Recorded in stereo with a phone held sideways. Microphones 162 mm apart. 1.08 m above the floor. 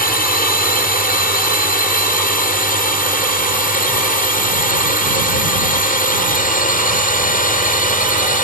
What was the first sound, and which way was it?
A drone, 60° left (ahead or behind).